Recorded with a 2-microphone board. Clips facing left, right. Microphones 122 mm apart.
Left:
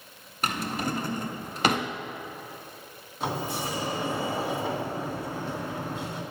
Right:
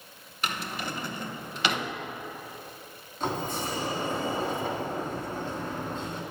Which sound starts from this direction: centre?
A sliding door, at 3.2 s.